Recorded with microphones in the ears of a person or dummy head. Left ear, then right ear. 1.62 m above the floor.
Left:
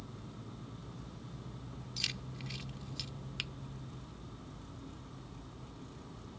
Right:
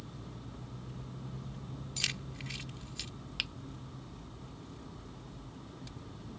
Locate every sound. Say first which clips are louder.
2.0 s keys jangling: right 2 dB; 25° right (ahead or behind)
3.4 s a finger snap: right 5 dB; 5° right (ahead or behind)